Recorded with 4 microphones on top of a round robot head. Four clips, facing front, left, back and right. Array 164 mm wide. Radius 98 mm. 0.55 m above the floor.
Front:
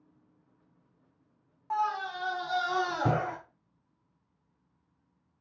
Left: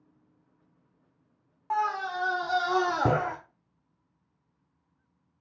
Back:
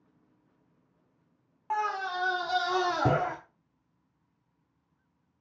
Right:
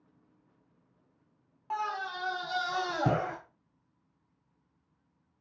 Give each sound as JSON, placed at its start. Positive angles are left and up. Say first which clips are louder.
{"t": 1.7, "sound": "a scream", "louder": "left 6 dB, even", "azimuth_deg": 140, "distance_m": 0.9}